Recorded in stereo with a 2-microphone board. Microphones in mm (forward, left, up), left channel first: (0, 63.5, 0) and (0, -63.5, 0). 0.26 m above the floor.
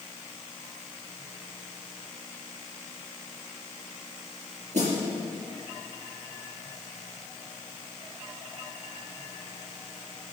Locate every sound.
4.7 s a snare drum: 65° right (ahead or behind), 4.5 m